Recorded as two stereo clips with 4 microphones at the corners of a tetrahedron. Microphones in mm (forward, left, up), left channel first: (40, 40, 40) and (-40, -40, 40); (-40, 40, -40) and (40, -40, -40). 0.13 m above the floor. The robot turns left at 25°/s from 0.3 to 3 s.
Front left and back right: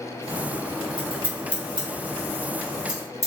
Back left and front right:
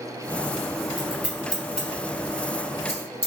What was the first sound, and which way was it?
Scissors, 125° right.